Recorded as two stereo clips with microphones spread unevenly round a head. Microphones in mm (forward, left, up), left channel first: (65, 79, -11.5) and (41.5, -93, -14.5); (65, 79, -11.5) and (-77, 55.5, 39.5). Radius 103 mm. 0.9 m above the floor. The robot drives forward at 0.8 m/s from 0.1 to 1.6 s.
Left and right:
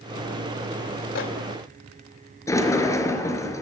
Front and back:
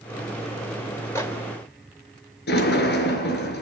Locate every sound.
1.1 s a microwave: 80° left, 3.5 m; by 1.3 s 85° left, 3 m
2.5 s a sliding door: 10° left, 4 m